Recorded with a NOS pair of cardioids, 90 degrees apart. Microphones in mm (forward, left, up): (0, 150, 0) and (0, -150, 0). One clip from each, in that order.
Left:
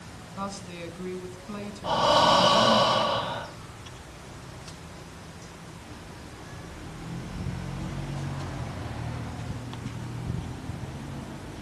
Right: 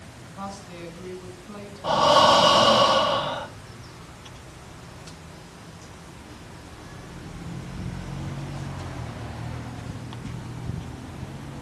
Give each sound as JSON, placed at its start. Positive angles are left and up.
{"t": 0.4, "sound": "a woman speaking", "azimuth_deg": 25, "distance_m": 5.5}
{"t": 1.8, "sound": "breathing", "azimuth_deg": -30, "distance_m": 2.5}